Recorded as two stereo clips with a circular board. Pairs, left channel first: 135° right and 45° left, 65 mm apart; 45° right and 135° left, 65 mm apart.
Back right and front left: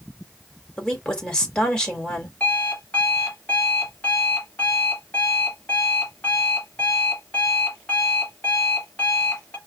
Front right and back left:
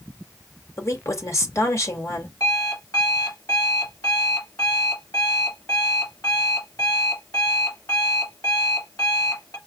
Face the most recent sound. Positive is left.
turn(degrees=-70)